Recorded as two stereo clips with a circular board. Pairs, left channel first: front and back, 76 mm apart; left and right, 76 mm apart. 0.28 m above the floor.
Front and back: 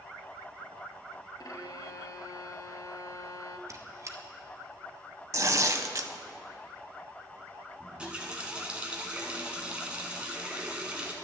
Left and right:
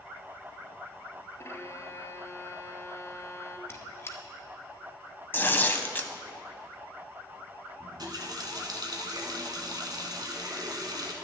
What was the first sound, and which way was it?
A violin, 35° left.